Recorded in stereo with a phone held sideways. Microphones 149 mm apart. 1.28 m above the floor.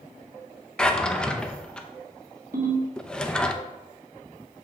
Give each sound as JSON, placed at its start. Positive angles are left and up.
{"t": 0.8, "sound": "a drawer", "side_deg": 5, "distance_m": 0.5}
{"t": 2.5, "sound": "a ringtone", "side_deg": -65, "distance_m": 1.8}